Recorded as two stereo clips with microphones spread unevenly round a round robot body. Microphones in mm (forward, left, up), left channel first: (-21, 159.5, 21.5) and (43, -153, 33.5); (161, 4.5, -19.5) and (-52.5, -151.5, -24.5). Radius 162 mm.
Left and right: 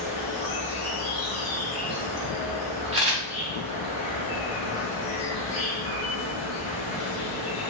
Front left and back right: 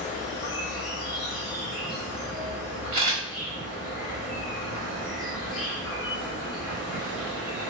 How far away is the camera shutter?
About 1.9 m.